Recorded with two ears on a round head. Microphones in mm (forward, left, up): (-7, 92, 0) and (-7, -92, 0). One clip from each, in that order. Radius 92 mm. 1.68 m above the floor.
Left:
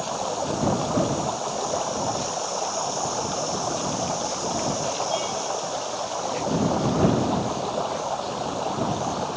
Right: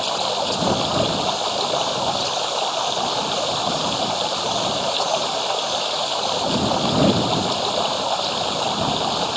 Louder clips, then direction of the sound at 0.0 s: Right 6 dB; 80° right.